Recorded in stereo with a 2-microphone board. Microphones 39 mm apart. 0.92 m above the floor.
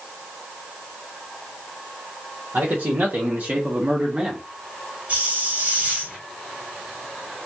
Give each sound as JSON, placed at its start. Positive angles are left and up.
{"t": 2.5, "sound": "a man speaking", "side_deg": -65, "distance_m": 1.3}
{"t": 5.1, "sound": "a hiss", "side_deg": -40, "distance_m": 1.8}